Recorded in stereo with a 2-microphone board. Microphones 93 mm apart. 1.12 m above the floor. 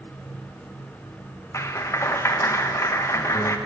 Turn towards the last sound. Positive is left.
turn(degrees=30)  # may be behind; listen again after turning